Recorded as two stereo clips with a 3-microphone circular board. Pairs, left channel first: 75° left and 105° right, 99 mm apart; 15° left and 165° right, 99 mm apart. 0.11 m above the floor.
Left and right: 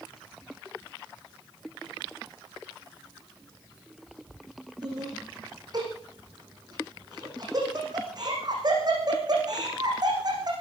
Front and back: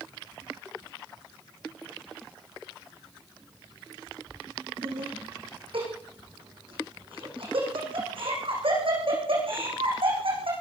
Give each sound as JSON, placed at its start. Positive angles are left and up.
{"t": 4.8, "sound": "laughter", "azimuth_deg": -150, "distance_m": 7.0}